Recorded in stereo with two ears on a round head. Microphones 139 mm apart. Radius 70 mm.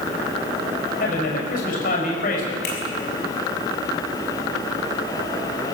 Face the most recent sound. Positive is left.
turn(degrees=75)  # may be behind; listen again after turning